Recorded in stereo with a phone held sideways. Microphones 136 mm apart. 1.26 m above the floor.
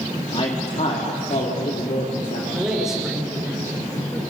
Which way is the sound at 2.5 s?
5° right (ahead or behind).